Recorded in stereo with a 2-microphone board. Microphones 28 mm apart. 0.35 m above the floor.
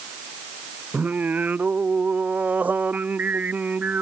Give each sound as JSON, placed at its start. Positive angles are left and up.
{"t": 0.9, "sound": "singing", "side_deg": -80}